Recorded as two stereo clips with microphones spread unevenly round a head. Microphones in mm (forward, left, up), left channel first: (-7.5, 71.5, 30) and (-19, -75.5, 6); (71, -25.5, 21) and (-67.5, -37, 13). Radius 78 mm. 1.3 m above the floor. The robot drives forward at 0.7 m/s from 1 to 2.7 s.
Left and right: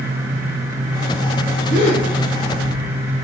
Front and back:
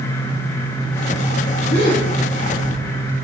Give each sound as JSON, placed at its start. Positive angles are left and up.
{"t": 1.7, "sound": "a gasp", "azimuth_deg": 40, "distance_m": 3.0}